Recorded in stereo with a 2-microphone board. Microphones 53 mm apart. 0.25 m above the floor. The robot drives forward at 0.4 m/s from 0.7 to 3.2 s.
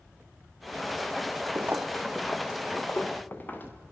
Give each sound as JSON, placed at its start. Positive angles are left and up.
{"t": 1.6, "sound": "footsteps", "side_deg": -50, "distance_m": 0.7}